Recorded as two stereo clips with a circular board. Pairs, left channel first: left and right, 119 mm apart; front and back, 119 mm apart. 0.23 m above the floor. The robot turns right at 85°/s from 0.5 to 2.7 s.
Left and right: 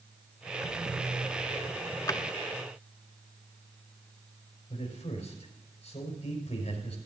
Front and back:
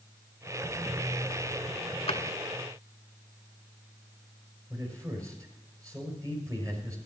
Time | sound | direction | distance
2.1 | a drawer | 30° left | 0.7 m
4.7 | a man speaking | 120° left | 5 m